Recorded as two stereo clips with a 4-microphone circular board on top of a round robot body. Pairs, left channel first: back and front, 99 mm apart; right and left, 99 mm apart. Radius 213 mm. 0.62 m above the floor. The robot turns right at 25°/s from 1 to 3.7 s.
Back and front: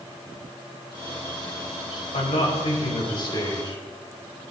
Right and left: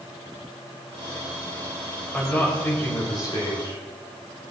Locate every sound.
2.1 s a man speaking: 165° right, 5 m; by 4.4 s 130° right, 5 m